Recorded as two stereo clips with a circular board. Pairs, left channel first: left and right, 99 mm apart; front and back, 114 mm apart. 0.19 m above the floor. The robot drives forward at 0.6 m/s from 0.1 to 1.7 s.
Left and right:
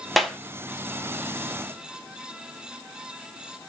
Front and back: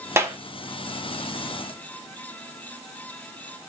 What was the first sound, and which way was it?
A clap, straight behind.